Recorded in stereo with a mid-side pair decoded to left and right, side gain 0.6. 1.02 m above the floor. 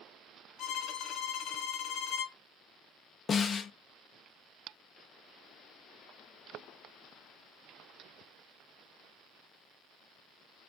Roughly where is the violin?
Ahead left.